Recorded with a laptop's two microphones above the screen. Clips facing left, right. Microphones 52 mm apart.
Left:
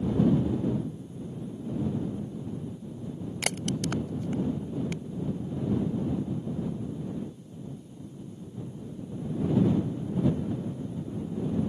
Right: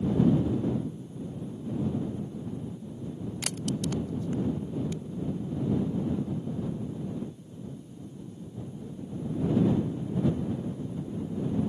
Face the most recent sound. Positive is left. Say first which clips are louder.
# left 2 dB
turn(degrees=65)  # may be behind; listen again after turning